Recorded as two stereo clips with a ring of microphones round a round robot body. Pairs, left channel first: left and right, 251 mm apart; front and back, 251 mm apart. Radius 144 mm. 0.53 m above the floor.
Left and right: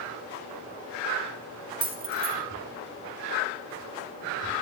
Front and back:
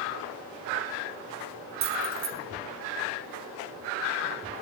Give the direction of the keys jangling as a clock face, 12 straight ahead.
5 o'clock.